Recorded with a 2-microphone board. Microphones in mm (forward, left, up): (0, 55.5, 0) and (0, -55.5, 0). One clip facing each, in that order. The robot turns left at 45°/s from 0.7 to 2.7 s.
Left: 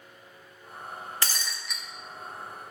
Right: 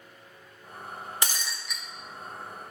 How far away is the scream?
I don't hear a scream.